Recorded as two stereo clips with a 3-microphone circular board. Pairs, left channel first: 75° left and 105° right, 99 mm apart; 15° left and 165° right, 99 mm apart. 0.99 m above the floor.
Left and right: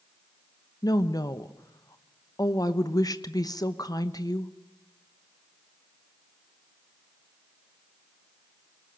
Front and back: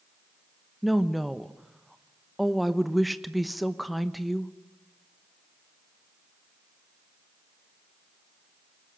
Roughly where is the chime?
No chime in this recording.